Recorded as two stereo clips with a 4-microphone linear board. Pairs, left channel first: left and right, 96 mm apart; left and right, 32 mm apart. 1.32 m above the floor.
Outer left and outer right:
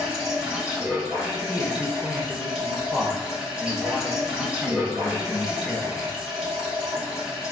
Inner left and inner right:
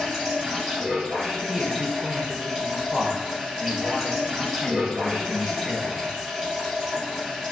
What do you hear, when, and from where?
0.0 s running water: 5° right (ahead or behind), 1.5 m
1.5 s a man speaking: 5° left (ahead or behind), 1.4 m